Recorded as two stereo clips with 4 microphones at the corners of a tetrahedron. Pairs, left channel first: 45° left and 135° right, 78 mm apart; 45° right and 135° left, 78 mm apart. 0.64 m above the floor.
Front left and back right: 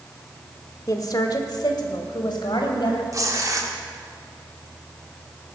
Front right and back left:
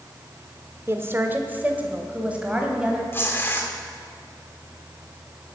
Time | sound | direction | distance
0.9 | a woman speaking | 80° left | 1.3 m
3.1 | tearing paper | 100° right | 1.9 m